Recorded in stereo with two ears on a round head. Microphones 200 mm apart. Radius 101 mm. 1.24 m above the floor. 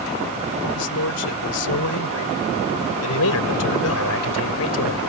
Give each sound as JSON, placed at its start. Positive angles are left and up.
{"t": 0.8, "sound": "a man speaking", "side_deg": 85}
{"t": 3.1, "sound": "a man speaking", "side_deg": 80}